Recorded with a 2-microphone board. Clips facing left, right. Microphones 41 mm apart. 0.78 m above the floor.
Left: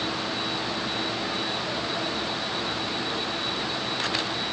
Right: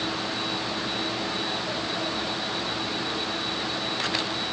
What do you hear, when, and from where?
Only background noise.